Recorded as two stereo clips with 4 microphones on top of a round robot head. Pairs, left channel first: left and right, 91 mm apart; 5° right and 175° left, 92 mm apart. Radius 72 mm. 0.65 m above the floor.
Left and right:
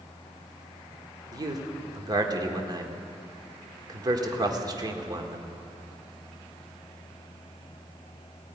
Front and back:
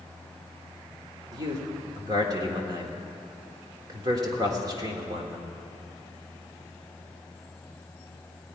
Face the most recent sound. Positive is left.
turn(degrees=-130)